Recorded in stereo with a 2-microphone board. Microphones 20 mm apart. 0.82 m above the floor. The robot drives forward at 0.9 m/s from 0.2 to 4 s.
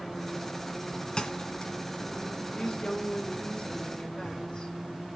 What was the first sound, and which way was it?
A thud, 45° left (ahead or behind).